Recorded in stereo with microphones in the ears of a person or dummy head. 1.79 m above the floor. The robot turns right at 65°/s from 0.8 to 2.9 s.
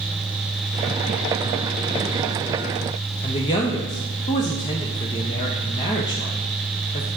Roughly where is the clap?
I don't hear a clap.